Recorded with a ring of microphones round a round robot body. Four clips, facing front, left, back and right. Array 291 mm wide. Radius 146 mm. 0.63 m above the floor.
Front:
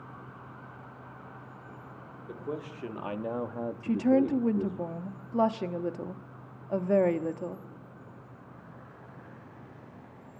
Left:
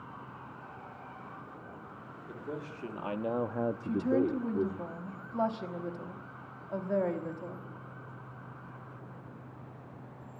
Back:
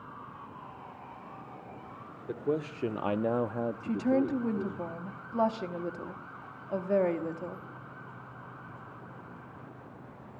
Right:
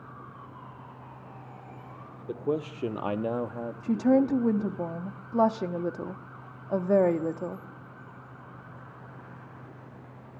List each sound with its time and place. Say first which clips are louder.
2.3 s a man speaking: right 11 dB, back 6 dB; 120° right, 1.7 m; by 4.8 s 75° left, 1.9 m
3.8 s a woman speaking: right 8 dB, front 4 dB; 65° right, 1.1 m